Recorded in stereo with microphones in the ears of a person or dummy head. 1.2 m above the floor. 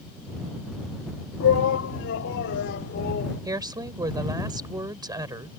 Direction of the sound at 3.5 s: 20° right (ahead or behind).